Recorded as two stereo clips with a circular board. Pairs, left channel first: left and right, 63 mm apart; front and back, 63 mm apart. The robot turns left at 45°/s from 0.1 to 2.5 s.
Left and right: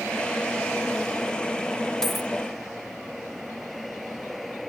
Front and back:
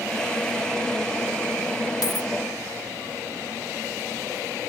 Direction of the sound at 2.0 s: 10° left.